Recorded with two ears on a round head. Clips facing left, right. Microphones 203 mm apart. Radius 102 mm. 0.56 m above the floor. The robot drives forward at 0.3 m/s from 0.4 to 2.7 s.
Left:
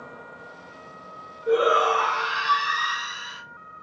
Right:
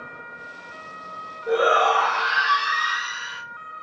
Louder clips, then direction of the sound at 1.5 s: Even; 35° left (ahead or behind).